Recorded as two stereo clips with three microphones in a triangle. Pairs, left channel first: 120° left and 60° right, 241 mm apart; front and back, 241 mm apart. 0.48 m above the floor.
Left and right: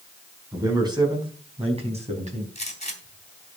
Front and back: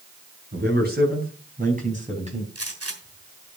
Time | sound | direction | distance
0.5 | a man speaking | 135° right | 4.5 m
2.5 | a gunshot | straight behind | 3 m